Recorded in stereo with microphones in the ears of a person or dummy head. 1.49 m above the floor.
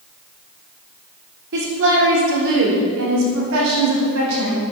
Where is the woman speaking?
55° right (ahead or behind), 3.5 m; by 4.6 s 70° right (ahead or behind), 6 m.